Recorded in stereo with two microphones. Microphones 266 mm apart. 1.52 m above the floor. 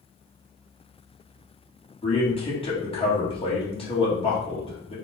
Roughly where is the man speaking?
Left.